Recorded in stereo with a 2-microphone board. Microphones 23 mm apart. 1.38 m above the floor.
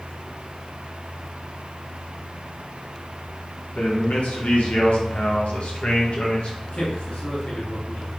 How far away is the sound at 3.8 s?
About 2 m.